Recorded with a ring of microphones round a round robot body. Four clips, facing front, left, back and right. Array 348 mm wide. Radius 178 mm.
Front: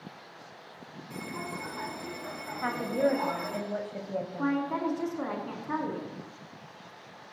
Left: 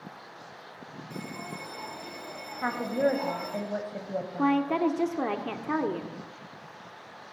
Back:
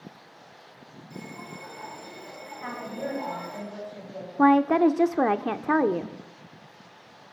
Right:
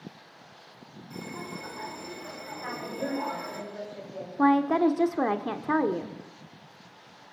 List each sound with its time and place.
1.1 s a bell: 15° right, 5 m
2.6 s a woman speaking: 60° left, 4 m
4.4 s a woman speaking: 170° right, 1.3 m